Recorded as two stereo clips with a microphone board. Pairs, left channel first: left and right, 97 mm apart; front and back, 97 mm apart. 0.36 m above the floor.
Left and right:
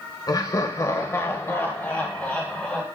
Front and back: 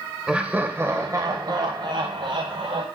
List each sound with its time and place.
0.3 s laughter: 105° left, 1.1 m; by 2.8 s 170° left, 2 m